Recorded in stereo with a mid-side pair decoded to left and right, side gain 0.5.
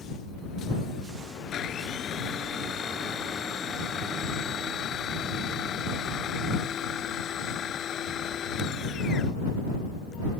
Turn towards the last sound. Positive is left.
turn(degrees=55)